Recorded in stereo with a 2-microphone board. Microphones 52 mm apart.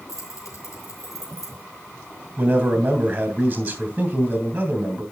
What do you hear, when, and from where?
0.1 s keys jangling: 80° left, 4 m
2.4 s a man speaking: 30° right (ahead or behind), 3 m